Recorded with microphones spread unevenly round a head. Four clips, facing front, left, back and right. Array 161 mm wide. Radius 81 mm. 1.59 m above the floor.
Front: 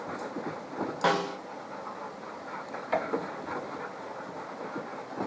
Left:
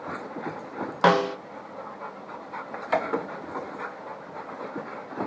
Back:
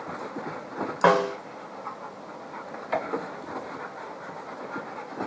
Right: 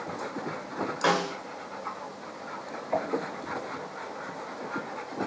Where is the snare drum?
145° left, 0.6 m.